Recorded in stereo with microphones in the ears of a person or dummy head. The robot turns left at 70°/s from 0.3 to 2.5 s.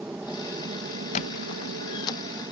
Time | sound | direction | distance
0.0 | an aircraft | 5° right (ahead or behind) | ?
1.1 | a squeak | 25° left (ahead or behind) | ?